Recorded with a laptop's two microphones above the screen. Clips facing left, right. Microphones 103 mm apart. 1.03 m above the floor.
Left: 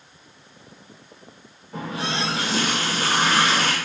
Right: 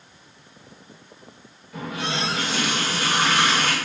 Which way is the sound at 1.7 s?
30° left (ahead or behind).